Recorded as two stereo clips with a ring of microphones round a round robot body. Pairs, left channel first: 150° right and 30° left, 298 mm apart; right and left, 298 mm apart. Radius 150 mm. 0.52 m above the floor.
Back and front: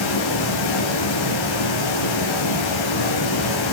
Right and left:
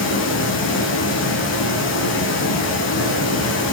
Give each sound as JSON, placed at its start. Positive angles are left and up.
{"t": 0.0, "sound": "running water", "azimuth_deg": -140, "distance_m": 6.5}